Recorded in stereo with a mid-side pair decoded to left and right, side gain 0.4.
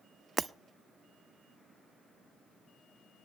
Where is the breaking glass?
35° right, 0.7 m.